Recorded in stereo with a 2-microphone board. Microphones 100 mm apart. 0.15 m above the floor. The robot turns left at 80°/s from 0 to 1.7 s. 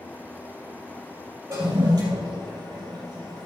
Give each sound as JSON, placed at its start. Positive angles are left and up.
{"t": 1.5, "sound": "a toilet flushing", "side_deg": -30, "distance_m": 3.5}